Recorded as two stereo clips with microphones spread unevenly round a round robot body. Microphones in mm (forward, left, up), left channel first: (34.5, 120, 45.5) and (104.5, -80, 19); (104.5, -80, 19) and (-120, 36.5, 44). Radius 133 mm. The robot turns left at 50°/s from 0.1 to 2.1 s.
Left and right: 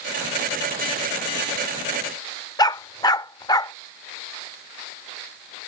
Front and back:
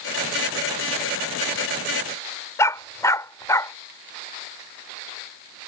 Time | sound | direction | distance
2.6 | a dog barking | 55° left | ?